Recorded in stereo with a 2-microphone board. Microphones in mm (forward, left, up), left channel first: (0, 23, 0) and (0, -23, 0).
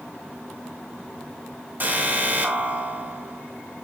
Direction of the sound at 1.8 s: 40° right (ahead or behind).